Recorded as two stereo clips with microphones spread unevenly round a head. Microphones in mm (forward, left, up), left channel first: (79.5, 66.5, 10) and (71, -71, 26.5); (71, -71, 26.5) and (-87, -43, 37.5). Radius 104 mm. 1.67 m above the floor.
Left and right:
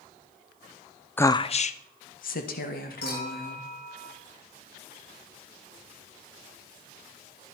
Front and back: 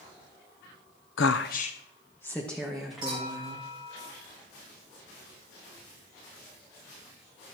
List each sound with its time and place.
1.2 s a woman speaking: 10° left, 0.7 m; by 3.6 s 85° left, 3.5 m
3.0 s a clink: 100° left, 5.5 m